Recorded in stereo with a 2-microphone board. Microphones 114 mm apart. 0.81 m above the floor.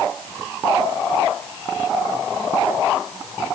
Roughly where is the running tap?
I don't hear a running tap.